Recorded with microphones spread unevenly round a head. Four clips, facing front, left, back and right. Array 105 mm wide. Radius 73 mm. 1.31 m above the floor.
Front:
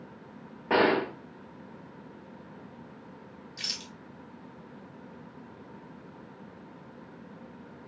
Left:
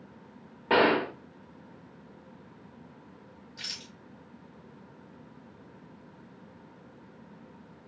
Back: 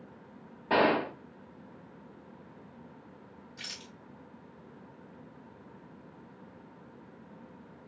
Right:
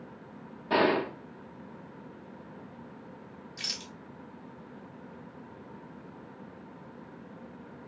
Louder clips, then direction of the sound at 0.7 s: Left 2 dB, front 2 dB; 65° left.